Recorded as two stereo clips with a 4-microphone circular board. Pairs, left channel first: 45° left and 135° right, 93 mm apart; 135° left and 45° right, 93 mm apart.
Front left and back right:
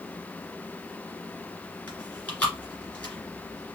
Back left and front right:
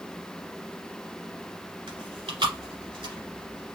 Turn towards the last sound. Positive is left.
turn(degrees=-30)